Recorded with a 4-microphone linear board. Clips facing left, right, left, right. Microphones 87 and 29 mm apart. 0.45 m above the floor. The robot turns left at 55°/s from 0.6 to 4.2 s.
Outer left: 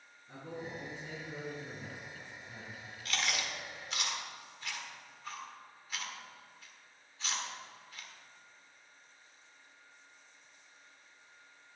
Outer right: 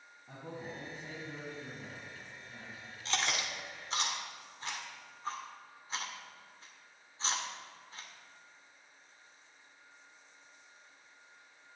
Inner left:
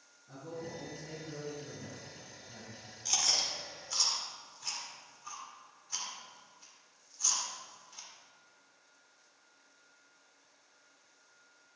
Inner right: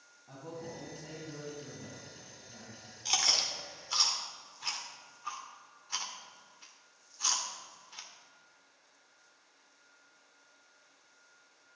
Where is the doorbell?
No doorbell in this recording.